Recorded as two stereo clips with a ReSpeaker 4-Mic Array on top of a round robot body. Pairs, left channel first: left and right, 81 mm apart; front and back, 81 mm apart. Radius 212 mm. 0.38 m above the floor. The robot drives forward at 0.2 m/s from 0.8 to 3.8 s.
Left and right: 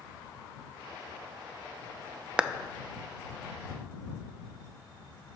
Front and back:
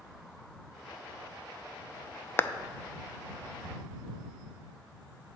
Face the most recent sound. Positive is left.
turn(degrees=-135)